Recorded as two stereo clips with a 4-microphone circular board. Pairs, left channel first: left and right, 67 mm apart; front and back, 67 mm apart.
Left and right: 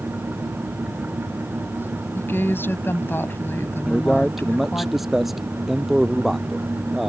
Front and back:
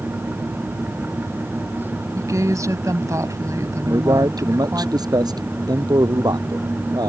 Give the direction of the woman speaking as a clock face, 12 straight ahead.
7 o'clock.